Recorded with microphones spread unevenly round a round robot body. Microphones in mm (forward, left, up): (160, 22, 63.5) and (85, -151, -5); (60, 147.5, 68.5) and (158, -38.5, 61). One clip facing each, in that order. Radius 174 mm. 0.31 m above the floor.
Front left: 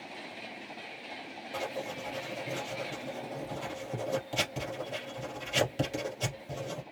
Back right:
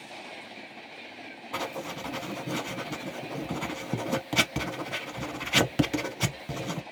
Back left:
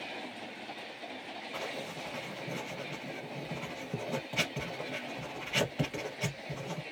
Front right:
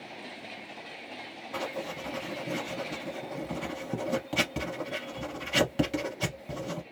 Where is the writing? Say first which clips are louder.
Back right 1 dB, front right 6 dB; 120° right, 0.7 m.